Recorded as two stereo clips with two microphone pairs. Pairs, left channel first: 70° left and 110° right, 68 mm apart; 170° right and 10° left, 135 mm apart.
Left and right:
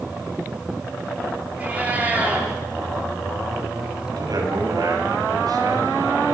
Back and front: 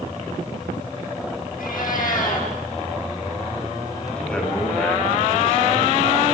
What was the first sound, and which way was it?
A cat meowing, straight behind.